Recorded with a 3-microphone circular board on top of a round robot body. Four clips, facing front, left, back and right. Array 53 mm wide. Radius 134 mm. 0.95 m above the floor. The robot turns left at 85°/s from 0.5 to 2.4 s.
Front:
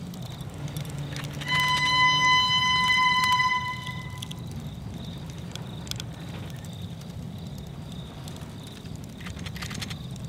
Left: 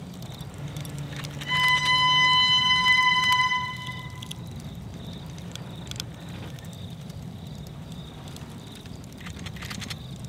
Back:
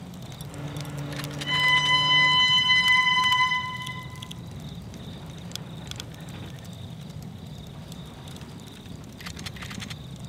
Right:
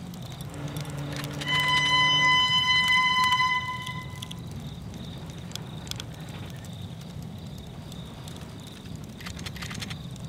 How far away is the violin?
About 2.0 m.